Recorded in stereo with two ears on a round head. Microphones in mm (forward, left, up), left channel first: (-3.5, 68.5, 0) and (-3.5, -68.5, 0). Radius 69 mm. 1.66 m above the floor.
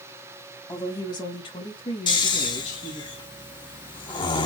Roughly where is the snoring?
Left.